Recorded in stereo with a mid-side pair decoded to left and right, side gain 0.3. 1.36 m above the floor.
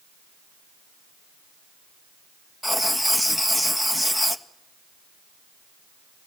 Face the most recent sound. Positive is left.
turn(degrees=10)